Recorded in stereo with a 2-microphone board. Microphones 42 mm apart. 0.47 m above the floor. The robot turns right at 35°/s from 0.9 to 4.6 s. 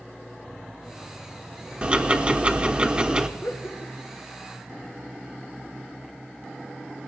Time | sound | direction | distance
1.8 | ticking | 25° right (ahead or behind) | 1.0 m
3.4 | laughter | 70° left (ahead or behind) | 2.0 m